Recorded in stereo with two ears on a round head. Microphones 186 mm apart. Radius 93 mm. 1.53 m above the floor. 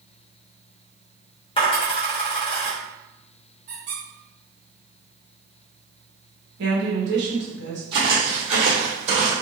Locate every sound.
1.6 s a dropped coin: 25° left (ahead or behind), 1.0 m
3.7 s a squeak: 40° right (ahead or behind), 1.3 m
6.6 s a woman speaking: 60° right (ahead or behind), 1.2 m
7.9 s footsteps: 25° right (ahead or behind), 1.7 m; by 9.3 s 35° right (ahead or behind), 1.8 m